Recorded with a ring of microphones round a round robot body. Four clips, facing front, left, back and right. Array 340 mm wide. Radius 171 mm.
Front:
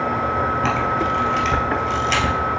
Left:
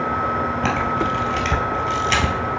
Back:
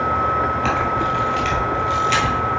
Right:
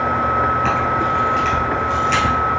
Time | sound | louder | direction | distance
0.6 | a camera shutter | right 3 dB, even | 70° left | 2 m